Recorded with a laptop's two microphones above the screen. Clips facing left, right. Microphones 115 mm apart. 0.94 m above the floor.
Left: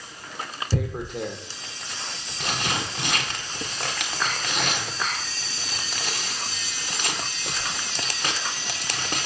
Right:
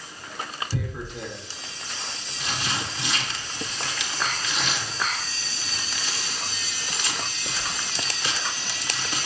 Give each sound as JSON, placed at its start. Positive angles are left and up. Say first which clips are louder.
{"t": 0.7, "sound": "tearing paper", "louder": "left 8 dB", "side_deg": 55, "distance_m": 0.7}